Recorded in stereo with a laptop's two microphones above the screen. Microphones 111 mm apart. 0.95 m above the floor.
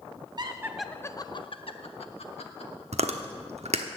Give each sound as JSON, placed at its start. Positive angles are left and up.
{"t": 0.4, "sound": "laughter", "side_deg": -40, "distance_m": 0.7}
{"t": 2.9, "sound": "chewing", "side_deg": -80, "distance_m": 1.0}